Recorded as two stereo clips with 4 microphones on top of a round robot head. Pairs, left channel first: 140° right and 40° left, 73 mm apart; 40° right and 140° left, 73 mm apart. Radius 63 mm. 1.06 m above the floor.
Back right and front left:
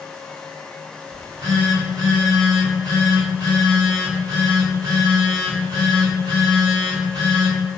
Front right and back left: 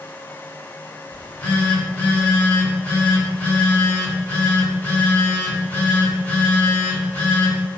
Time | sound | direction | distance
1.1 | a phone buzzing | 25° left | 1.8 m